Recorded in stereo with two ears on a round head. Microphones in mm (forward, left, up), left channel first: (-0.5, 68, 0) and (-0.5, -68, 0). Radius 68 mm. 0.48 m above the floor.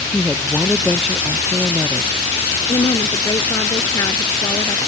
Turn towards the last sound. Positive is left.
turn(degrees=20)  # may be behind; listen again after turning